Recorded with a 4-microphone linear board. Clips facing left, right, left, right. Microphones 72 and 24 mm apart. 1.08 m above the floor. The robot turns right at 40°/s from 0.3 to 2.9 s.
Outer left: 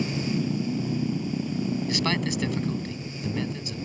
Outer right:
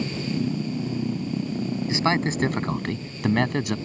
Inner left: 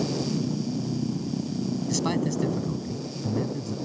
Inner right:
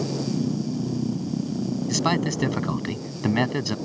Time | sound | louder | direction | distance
1.9 | a man speaking | outer right 4 dB, inner right 4 dB | 155° right | ?